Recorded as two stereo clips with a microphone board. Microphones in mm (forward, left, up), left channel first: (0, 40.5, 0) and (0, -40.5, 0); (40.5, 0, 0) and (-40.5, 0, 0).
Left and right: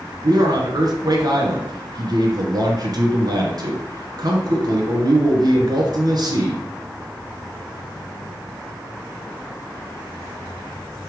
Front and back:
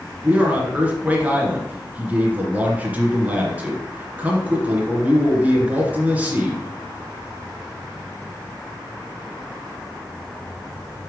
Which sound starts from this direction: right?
A man speaking, at 0.2 s.